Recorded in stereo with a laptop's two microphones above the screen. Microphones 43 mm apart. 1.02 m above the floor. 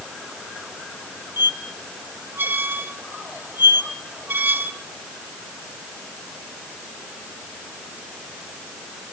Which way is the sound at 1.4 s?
50° right (ahead or behind).